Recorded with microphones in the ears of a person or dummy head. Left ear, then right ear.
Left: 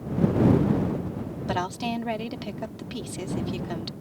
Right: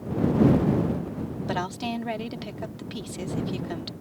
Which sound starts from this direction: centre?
A woman speaking, at 1.5 s.